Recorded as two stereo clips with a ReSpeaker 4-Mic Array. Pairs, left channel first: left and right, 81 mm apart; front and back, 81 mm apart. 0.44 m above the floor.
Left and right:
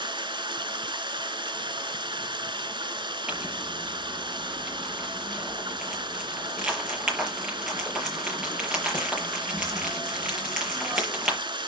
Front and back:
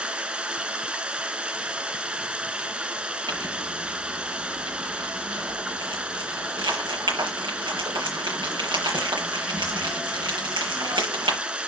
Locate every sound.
0.0 s running water: 105° right, 1.2 m
3.3 s crumpling: 175° right, 6.5 m